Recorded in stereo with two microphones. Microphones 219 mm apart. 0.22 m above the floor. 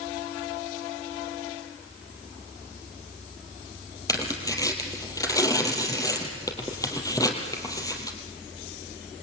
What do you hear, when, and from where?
4.1 s tearing paper: 15° left (ahead or behind), 3 m